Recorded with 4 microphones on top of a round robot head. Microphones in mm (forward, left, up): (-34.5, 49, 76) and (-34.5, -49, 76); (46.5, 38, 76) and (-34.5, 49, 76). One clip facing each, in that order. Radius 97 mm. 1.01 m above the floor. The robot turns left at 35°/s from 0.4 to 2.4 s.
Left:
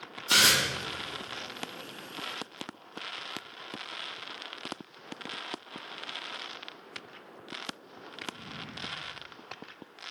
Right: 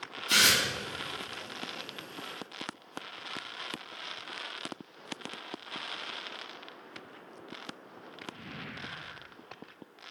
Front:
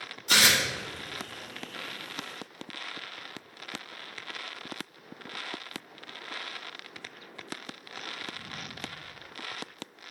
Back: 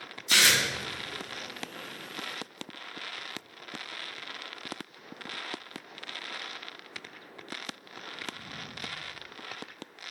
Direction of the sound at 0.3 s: 30° left.